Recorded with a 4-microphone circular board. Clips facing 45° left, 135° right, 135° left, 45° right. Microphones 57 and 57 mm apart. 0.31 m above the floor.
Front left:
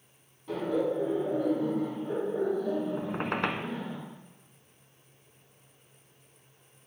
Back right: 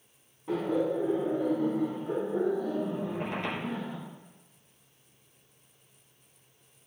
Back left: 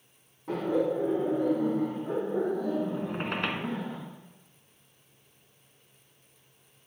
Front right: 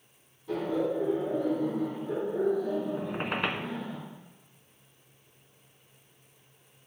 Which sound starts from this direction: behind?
Laughter, at 0.5 s.